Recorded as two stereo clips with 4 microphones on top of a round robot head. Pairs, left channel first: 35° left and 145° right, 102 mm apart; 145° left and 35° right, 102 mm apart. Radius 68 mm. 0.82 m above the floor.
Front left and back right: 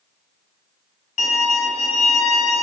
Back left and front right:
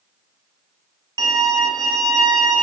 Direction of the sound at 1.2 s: 20° left.